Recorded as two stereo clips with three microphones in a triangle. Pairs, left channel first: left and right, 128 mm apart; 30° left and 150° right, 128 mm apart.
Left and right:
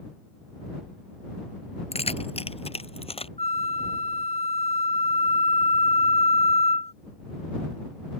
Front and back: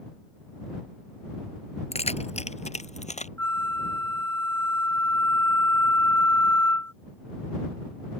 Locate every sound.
1.9 s keys jangling: 60° left; by 3.3 s 50° left
3.4 s a flute: 100° left